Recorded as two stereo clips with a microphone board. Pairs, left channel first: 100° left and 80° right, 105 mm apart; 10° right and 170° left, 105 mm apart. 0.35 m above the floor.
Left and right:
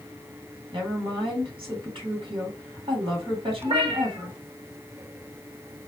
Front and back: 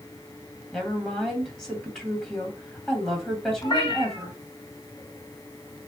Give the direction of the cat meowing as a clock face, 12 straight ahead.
2 o'clock.